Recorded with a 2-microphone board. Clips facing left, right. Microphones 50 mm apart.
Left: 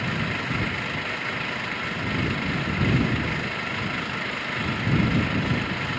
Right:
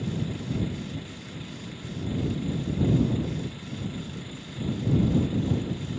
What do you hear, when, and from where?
0.0 s an engine running: 85° left